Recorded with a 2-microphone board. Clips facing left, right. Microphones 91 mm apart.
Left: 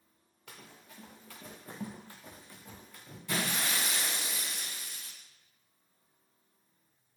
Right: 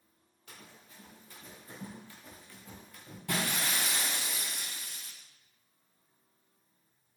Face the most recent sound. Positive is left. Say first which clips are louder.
# even
turn(degrees=-60)  # may be behind; listen again after turning